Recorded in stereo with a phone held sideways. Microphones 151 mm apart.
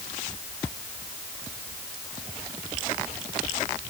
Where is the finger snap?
No finger snap in this recording.